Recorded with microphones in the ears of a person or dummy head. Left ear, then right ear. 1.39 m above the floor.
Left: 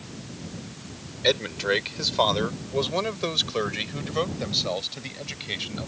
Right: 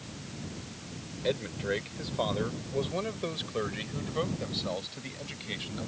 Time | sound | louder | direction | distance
1.2 | a man speaking | left 8 dB | 45° left (ahead or behind) | ?